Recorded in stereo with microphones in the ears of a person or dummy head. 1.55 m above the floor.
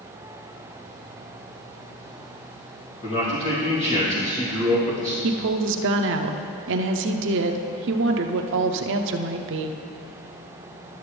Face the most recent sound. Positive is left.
turn(degrees=-65)  # may be behind; listen again after turning